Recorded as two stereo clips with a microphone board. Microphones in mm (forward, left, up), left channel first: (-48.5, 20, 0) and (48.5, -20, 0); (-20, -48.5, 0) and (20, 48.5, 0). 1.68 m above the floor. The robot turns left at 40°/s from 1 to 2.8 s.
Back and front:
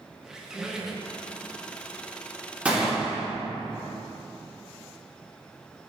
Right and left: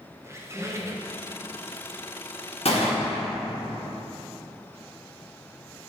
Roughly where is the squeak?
Ahead left.